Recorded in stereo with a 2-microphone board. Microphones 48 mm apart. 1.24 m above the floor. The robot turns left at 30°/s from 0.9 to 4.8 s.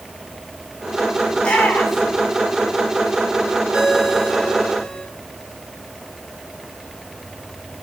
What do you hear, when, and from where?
1.4 s a shout: 25° left (ahead or behind), 7.5 m; by 2.2 s centre (ahead or behind), 7.5 m
3.7 s a ringtone: 155° right, 6.5 m; by 5.0 s 170° left, 6.5 m